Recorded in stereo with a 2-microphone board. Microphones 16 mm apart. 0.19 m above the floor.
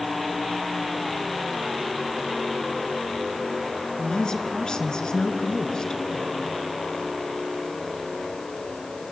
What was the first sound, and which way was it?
A woman speaking, 50° left (ahead or behind).